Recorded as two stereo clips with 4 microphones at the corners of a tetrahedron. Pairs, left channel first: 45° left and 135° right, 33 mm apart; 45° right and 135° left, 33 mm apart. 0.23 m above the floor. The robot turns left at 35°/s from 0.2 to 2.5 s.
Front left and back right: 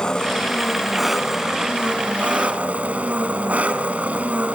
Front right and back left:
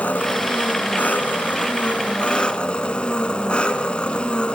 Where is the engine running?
15° right, 2 m; by 4.6 s 95° right, 2 m.